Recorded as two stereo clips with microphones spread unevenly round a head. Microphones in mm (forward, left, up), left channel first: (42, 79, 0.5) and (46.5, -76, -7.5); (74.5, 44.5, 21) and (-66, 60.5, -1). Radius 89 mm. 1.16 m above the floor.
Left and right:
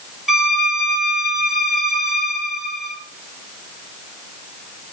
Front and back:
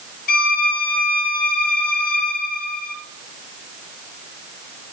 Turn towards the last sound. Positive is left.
turn(degrees=0)